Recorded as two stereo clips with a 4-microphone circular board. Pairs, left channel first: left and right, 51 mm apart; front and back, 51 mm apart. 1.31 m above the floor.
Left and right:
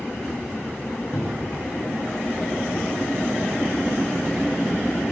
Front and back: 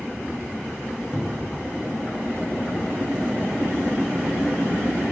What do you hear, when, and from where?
1.1 s a cupboard door: 105° left, 0.9 m